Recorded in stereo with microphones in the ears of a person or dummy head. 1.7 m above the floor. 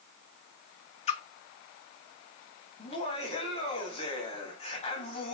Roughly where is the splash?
Left.